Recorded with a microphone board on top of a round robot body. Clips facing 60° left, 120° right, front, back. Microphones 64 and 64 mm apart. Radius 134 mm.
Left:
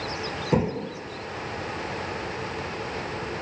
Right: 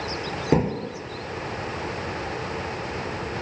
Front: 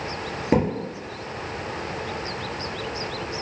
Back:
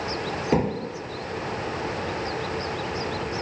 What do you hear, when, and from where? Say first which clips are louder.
0.5 s a thud: right 2 dB, front 2 dB; 70° right, 1.8 m